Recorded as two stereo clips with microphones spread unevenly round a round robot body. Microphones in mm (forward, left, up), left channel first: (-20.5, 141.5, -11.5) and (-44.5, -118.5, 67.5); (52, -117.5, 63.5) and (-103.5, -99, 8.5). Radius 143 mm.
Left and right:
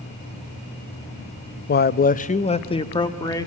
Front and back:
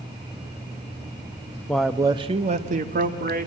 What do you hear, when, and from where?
1.7 s a man speaking: 90° left, 0.6 m; by 3.5 s 155° left, 1.7 m